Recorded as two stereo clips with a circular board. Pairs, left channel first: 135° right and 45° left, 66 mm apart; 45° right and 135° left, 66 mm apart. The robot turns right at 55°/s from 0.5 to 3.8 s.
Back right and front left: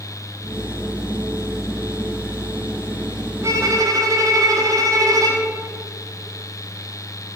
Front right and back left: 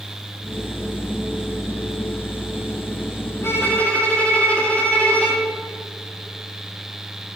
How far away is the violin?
About 1.3 m.